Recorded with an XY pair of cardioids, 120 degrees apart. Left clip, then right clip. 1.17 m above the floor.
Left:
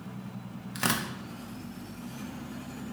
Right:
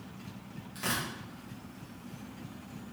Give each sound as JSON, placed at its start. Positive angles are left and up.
{"t": 0.8, "sound": "tearing paper", "azimuth_deg": 65, "distance_m": 0.8}